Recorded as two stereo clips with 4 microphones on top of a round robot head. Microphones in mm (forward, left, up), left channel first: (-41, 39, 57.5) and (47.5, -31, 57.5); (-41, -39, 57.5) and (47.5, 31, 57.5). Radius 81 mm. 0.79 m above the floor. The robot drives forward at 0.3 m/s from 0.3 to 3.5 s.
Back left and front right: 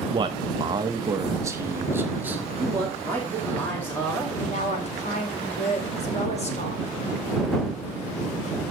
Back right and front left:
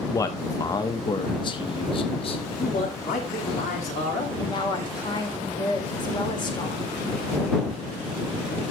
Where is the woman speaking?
170° left, 2.5 m.